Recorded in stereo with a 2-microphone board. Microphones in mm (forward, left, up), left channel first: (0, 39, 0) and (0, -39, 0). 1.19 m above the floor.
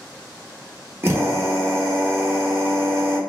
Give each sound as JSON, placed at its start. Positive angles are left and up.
{"t": 1.0, "sound": "a drill", "side_deg": -30, "distance_m": 0.7}